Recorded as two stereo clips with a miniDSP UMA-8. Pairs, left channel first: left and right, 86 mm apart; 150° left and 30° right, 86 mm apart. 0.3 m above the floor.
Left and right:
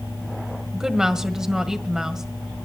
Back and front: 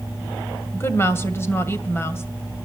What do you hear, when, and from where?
0.7 s a woman speaking: 170° right, 1.8 m